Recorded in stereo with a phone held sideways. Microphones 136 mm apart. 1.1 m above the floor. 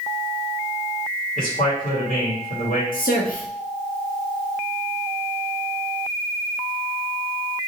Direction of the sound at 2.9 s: 80° left.